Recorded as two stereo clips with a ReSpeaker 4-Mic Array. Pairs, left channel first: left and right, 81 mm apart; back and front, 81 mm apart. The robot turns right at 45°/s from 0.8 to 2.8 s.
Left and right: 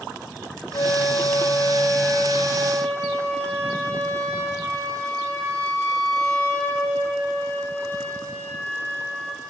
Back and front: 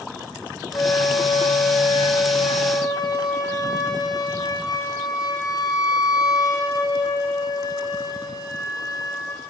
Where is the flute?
125° left, 4.5 m; by 9.4 s 145° right, 4.5 m.